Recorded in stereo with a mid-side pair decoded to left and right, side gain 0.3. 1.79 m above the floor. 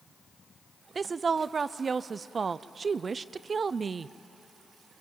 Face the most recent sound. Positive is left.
turn(degrees=-55)